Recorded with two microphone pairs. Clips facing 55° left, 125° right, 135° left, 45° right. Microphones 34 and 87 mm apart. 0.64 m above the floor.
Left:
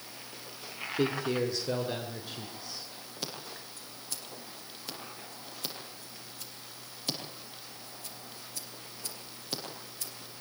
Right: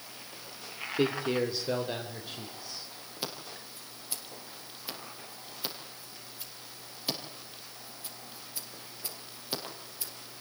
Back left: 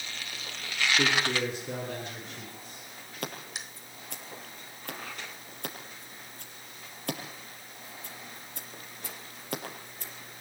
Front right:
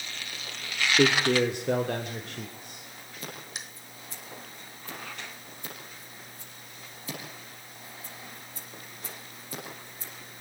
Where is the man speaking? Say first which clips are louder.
Right 1 dB, front right 8 dB; 55° right, 1.9 m; by 2.9 s 35° right, 3.5 m.